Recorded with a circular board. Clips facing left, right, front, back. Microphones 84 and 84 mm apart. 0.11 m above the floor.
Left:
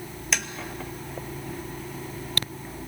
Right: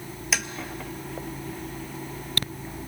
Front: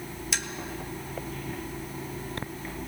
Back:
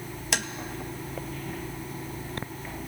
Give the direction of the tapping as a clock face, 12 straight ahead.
6 o'clock.